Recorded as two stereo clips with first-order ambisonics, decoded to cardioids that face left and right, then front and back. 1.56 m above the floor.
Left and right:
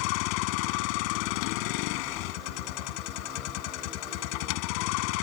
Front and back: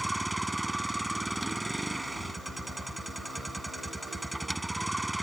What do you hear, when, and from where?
0.0 s a vehicle: 95° left